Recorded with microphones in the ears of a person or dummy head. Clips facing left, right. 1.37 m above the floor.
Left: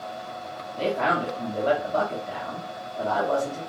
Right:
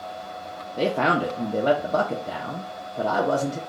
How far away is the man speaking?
About 0.7 m.